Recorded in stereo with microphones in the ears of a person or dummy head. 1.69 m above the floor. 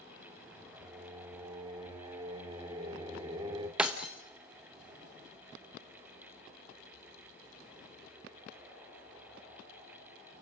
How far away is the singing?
About 1.6 m.